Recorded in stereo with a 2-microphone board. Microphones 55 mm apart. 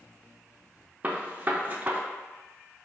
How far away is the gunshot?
About 0.6 m.